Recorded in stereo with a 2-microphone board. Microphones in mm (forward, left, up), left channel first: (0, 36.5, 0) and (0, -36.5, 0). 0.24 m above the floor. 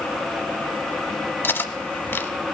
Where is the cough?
No cough in this recording.